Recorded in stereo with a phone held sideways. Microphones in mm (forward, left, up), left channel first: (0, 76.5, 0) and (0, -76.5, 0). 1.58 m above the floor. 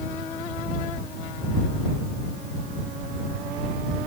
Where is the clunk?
No clunk in this recording.